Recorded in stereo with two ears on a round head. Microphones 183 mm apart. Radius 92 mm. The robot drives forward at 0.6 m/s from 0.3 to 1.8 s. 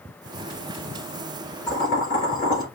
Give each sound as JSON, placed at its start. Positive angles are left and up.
{"t": 1.7, "sound": "boiling", "side_deg": 35, "distance_m": 4.0}